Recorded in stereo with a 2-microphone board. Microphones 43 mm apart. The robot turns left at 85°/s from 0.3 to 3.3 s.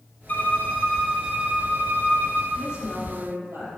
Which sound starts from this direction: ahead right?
A woman speaking, at 2.5 s.